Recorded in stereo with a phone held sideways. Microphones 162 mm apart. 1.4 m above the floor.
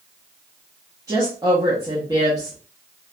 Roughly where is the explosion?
I don't hear an explosion.